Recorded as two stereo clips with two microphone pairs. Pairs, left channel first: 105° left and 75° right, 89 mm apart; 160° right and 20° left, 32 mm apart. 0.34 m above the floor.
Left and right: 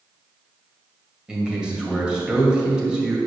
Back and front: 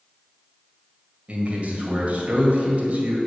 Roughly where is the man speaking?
Ahead.